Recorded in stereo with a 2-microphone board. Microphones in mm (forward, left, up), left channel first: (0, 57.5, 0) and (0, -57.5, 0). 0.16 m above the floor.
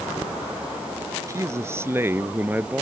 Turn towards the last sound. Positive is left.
turn(degrees=-15)  # may be behind; listen again after turning